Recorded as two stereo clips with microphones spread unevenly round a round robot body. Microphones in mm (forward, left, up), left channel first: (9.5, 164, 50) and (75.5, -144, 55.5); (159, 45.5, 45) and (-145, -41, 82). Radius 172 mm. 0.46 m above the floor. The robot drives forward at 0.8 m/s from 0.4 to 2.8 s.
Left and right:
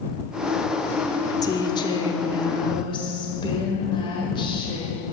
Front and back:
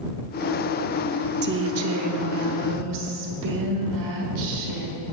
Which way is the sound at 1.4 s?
165° left.